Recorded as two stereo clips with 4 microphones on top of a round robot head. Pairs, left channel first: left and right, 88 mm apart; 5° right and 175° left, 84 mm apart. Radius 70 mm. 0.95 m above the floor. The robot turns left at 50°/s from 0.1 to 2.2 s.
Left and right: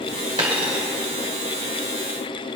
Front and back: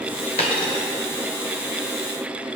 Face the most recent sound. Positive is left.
turn(degrees=-125)